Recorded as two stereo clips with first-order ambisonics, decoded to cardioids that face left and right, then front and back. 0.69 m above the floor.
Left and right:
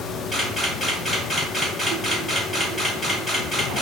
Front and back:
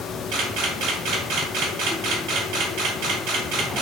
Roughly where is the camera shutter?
Behind.